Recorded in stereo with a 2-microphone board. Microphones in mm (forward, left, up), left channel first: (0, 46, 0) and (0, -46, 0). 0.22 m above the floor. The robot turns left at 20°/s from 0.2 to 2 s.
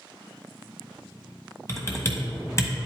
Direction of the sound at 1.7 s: 30° left (ahead or behind).